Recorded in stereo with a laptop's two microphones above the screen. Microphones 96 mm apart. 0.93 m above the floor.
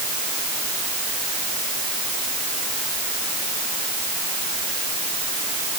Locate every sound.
Only background noise.